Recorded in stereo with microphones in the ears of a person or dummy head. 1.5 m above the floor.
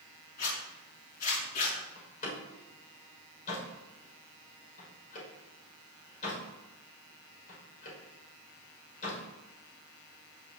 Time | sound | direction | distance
0.4 | a zipper | 45° left (ahead or behind) | 6.5 m
1.9 | a door slam | 45° left (ahead or behind) | 5.5 m